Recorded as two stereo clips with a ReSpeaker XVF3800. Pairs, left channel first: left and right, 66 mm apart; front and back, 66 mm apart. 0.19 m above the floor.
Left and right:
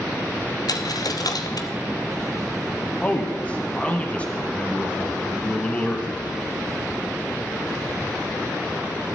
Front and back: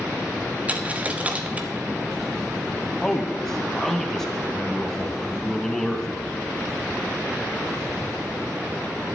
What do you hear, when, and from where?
0.7 s a dropped coin: 110° left, 0.7 m
3.0 s a man speaking: 70° left, 1.0 m